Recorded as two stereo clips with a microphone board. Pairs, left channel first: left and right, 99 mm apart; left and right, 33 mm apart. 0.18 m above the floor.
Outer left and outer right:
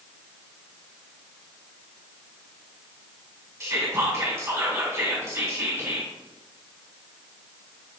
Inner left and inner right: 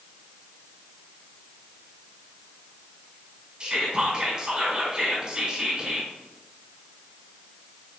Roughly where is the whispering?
Right.